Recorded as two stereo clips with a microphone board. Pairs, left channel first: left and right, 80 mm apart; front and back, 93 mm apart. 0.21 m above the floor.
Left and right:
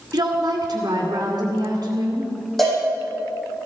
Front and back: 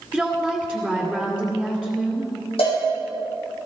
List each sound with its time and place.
0.1 s a woman speaking: 75° right, 1.9 m
2.6 s a cowbell: straight ahead, 6.5 m